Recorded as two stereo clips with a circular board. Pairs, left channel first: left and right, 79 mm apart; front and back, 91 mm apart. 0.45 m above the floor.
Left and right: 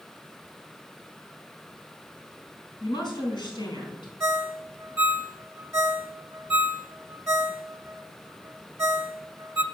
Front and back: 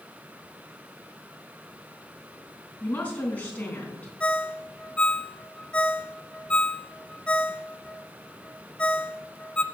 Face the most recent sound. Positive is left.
turn(degrees=-70)